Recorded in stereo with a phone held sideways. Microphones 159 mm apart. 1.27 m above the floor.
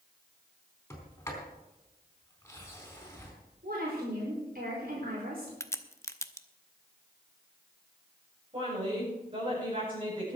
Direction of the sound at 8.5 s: 40° right (ahead or behind).